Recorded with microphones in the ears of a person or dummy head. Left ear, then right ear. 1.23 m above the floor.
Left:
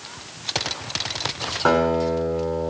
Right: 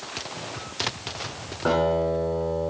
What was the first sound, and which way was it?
A guitar, 45° left (ahead or behind).